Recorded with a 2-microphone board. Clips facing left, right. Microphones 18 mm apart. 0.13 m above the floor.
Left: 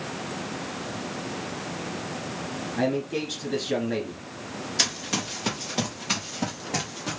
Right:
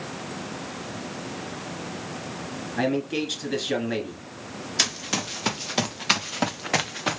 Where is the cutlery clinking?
I don't hear cutlery clinking.